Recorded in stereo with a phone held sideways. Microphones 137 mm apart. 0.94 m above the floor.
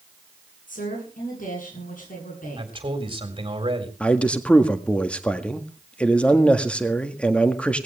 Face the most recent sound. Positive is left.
turn(degrees=10)  # may be behind; listen again after turning